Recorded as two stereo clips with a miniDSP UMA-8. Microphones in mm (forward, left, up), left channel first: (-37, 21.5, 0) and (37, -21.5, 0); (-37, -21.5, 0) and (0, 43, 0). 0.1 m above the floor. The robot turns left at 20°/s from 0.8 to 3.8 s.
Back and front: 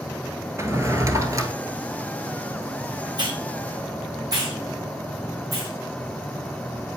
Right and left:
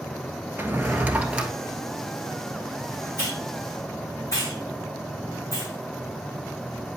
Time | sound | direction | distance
0.6 | a drawer | 10° left | 1.0 m
3.2 | a hiss | 60° right | 4 m